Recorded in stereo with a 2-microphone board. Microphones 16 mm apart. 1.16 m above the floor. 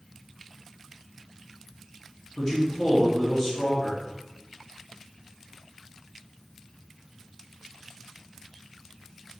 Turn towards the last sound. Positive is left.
turn(degrees=30)  # may be behind; listen again after turning